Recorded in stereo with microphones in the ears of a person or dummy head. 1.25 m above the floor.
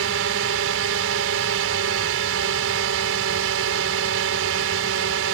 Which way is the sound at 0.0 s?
75° right (ahead or behind).